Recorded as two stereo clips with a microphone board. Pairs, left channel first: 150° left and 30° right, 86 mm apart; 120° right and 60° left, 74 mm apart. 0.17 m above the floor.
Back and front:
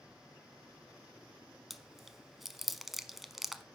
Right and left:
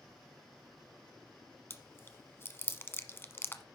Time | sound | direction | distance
1.7 | chewing | 120° right | 0.9 m